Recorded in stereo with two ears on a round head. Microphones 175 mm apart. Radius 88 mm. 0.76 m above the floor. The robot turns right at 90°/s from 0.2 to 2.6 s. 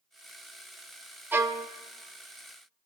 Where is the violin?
170° right, 0.6 m; by 1.7 s 135° right, 0.6 m.